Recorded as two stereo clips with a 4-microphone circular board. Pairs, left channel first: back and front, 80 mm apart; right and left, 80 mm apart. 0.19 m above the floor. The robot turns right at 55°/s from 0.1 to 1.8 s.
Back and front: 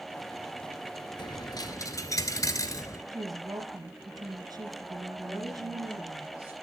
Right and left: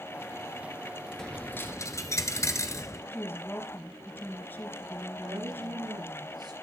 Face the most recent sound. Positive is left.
turn(degrees=75)